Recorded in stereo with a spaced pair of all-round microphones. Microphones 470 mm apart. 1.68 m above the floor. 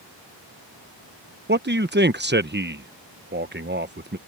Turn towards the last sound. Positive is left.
turn(degrees=-25)  # may be behind; listen again after turning